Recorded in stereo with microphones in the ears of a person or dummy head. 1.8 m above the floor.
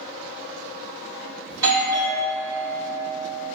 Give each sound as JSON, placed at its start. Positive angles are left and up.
{"t": 1.5, "sound": "a doorbell", "side_deg": -20, "distance_m": 1.8}